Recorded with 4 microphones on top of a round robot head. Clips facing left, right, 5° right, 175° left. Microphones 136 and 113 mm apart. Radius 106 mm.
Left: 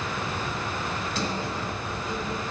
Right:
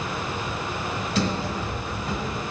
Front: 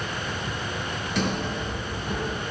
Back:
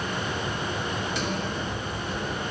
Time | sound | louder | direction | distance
1.1 | a sliding door | right 7 dB, front 2 dB | 55° right | 1.1 m